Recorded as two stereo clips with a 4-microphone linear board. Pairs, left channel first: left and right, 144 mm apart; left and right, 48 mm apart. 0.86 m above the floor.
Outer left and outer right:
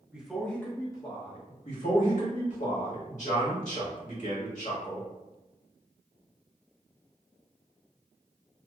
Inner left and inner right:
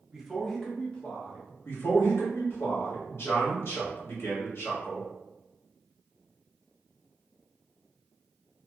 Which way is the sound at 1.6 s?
60° left (ahead or behind).